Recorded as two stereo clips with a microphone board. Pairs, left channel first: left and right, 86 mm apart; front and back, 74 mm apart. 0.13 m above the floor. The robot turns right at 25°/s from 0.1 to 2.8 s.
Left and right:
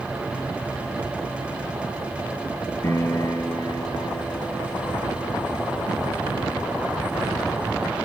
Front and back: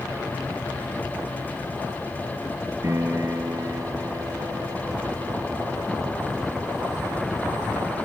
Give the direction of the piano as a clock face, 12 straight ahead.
7 o'clock.